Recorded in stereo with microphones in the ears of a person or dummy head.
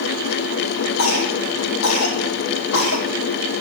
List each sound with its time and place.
1.0 s a cough: 85° left, 3 m